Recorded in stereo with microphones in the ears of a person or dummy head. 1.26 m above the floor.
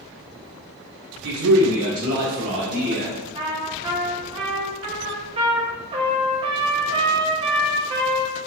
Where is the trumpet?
30° right (ahead or behind), 0.6 m.